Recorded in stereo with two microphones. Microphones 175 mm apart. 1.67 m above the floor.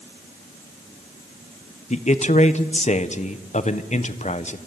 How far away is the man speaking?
About 1.2 m.